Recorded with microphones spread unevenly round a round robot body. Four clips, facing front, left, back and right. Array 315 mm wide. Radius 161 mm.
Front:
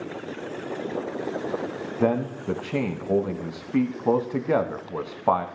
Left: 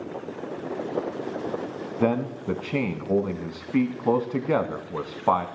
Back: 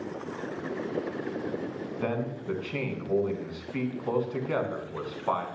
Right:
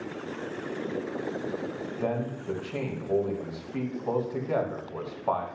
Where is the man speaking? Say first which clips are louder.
Left 7 dB, front 8 dB; 45° left, 1.0 m.